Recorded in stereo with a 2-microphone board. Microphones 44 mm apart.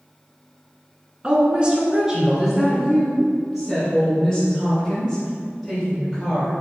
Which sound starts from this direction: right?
A woman speaking, at 1.2 s.